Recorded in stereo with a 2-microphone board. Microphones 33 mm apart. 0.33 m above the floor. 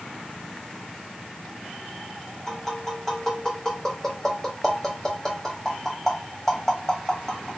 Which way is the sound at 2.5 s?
15° left (ahead or behind).